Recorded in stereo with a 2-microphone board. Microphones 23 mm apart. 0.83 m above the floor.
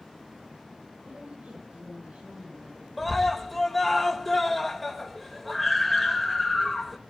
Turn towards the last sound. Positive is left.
turn(degrees=0)  # may be behind; listen again after turning